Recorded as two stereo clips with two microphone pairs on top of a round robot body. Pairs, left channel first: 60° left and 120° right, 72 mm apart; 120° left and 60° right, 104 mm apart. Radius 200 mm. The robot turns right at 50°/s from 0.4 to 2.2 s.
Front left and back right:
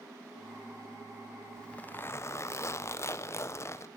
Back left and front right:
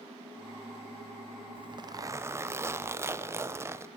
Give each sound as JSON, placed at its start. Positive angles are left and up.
{"t": 1.6, "sound": "a zipper", "azimuth_deg": -25, "distance_m": 0.5}